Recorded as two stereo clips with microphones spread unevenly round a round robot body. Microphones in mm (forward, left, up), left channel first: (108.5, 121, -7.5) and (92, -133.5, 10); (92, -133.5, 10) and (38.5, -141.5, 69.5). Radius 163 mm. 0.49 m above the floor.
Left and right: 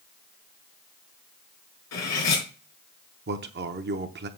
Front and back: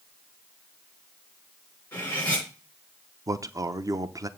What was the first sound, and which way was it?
Cutlery clinking, 65° left.